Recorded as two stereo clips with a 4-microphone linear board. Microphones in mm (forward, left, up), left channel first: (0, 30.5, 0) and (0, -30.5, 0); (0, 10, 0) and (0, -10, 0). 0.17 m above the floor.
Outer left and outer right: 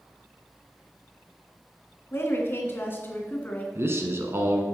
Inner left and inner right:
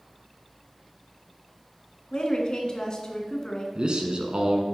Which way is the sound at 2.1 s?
45° left (ahead or behind).